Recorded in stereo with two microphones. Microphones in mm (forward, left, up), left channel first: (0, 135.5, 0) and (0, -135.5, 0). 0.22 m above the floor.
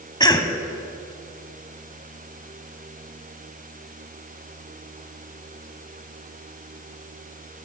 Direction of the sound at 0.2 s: 15° left (ahead or behind).